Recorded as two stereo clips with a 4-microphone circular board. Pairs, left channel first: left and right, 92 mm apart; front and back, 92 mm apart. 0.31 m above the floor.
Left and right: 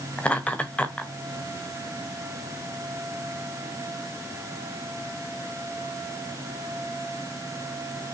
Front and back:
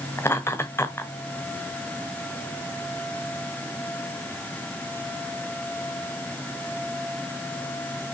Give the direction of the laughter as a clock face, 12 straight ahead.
11 o'clock.